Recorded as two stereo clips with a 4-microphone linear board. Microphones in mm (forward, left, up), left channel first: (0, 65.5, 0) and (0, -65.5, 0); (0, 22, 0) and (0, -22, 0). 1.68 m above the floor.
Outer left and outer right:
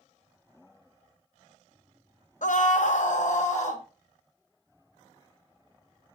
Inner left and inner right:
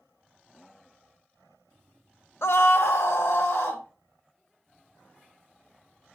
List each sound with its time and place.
2.4 s a scream: 70° left (ahead or behind), 0.7 m; by 3.8 s 65° left (ahead or behind), 2 m